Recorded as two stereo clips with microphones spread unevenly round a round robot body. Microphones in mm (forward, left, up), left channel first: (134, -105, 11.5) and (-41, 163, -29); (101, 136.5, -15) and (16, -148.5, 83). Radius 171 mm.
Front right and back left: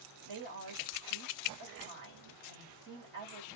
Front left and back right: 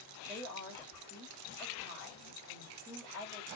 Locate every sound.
0.2 s a woman speaking: 160° left, 1.6 m